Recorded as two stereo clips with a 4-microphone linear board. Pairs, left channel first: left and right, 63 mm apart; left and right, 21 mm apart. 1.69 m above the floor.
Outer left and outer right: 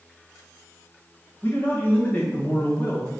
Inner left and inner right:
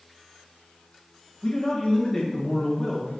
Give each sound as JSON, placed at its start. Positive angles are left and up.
{"t": 1.4, "sound": "a man speaking", "side_deg": 25, "distance_m": 2.0}